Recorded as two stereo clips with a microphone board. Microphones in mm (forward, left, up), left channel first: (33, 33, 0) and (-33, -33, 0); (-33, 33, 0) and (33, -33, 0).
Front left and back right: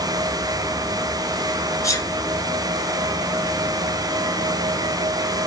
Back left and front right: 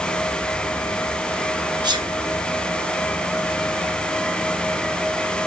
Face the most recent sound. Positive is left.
turn(degrees=-10)